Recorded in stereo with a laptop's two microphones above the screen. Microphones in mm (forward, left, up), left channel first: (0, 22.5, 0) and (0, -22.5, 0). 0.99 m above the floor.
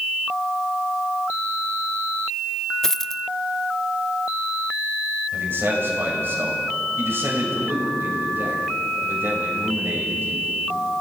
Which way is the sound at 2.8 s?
10° left (ahead or behind).